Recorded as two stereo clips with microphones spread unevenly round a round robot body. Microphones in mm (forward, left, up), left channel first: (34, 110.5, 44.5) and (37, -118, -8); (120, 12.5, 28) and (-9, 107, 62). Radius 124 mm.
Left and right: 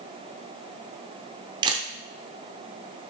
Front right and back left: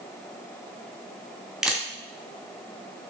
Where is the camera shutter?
115° right, 0.6 m.